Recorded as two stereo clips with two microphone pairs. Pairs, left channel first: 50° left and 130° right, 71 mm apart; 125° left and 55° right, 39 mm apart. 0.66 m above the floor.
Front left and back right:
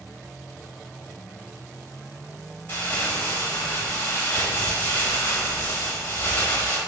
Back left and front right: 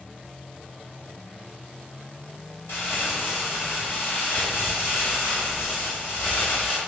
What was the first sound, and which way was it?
Crumpling, 110° left.